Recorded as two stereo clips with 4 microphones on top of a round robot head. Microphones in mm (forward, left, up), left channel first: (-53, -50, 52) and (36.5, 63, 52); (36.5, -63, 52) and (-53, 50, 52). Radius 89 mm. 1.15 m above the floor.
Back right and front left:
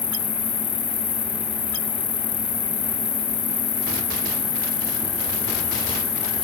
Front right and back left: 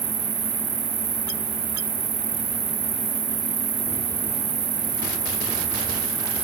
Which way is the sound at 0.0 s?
Straight behind.